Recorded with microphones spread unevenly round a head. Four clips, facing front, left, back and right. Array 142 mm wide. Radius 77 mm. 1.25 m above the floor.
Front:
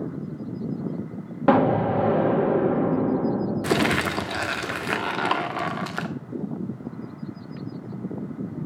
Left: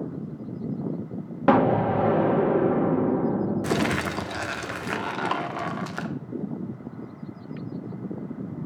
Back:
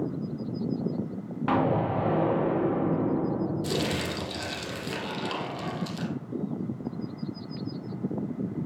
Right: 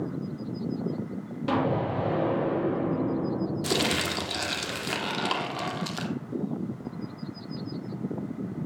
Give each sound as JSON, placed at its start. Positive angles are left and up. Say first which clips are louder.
{"t": 1.5, "sound": "an explosion", "louder": "left 7 dB, front 6 dB", "azimuth_deg": 35, "distance_m": 1.9}
{"t": 3.6, "sound": "crumpling", "louder": "left 3 dB, front 7 dB", "azimuth_deg": 5, "distance_m": 1.3}